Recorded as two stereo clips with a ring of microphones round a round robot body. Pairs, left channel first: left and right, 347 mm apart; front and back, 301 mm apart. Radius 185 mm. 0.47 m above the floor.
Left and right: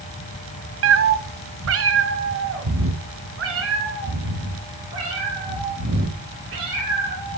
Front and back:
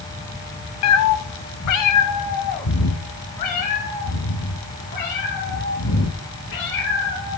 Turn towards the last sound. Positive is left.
turn(degrees=-35)